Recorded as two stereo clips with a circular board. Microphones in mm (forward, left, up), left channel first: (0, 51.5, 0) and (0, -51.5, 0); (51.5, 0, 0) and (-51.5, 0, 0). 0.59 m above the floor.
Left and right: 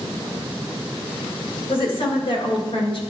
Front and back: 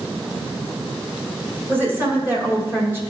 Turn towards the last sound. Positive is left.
turn(degrees=115)